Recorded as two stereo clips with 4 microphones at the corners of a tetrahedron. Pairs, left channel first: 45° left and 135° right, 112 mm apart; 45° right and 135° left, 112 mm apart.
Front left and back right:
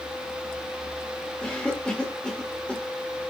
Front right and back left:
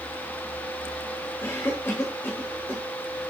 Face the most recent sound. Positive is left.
turn(degrees=-20)